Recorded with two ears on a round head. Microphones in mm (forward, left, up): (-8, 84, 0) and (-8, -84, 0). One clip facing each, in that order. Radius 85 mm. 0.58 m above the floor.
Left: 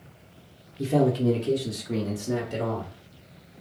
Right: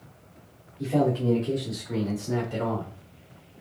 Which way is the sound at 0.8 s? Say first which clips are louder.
Left 2 dB; 45° left (ahead or behind).